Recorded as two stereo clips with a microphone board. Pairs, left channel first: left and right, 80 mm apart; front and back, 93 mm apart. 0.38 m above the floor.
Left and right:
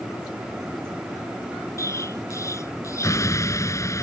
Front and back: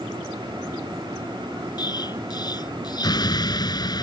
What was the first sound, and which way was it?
An explosion, 40° left.